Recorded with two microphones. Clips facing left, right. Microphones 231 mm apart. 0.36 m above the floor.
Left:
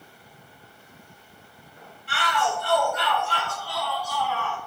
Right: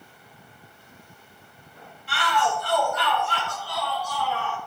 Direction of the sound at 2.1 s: 55° left (ahead or behind).